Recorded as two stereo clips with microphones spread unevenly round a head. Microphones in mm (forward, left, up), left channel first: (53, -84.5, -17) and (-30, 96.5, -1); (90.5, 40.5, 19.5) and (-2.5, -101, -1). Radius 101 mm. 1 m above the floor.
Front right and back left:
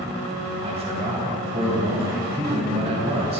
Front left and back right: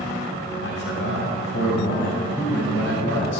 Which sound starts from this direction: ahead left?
A man speaking, at 0.6 s.